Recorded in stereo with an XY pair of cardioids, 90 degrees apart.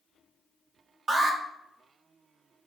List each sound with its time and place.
1.1 s an alarm: 45° right, 1.5 m